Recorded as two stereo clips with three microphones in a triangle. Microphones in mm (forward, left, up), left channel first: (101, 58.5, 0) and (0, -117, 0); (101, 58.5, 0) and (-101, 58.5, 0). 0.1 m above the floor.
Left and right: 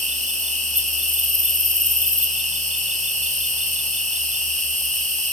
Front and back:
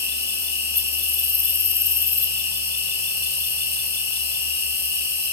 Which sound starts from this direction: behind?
An insect, at 0.0 s.